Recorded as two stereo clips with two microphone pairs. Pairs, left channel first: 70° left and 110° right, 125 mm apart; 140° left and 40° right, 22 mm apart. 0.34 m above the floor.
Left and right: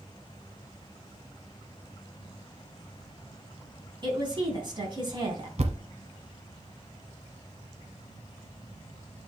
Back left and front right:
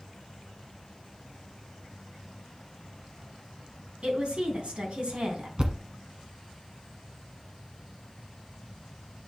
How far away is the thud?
About 1.1 m.